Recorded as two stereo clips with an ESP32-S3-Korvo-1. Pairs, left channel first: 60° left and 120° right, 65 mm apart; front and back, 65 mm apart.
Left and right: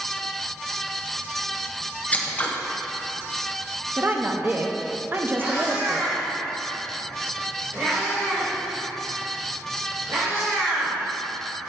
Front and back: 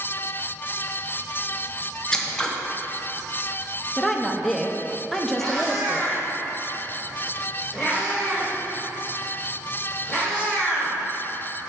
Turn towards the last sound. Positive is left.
turn(degrees=-95)